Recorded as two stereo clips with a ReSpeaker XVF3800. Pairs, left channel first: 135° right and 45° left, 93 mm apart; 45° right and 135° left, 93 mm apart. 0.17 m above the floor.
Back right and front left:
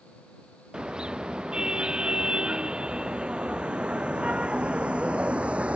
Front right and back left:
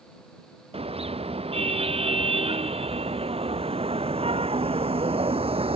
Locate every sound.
0.7 s a car horn: 125° left; by 5.8 s 120° left